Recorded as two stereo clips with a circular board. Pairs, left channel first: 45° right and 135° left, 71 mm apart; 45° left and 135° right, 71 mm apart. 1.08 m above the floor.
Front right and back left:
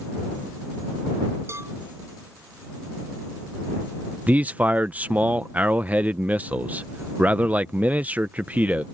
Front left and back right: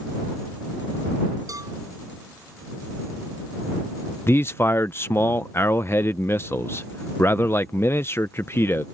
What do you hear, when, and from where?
1.5 s a cowbell: 175° right
4.3 s a man speaking: 80° left